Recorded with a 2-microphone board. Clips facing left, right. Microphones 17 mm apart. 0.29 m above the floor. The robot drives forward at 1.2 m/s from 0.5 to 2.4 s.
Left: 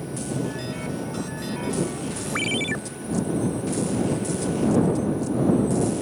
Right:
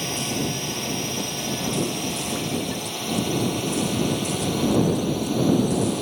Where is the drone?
70° right (ahead or behind); by 6.0 s 80° right.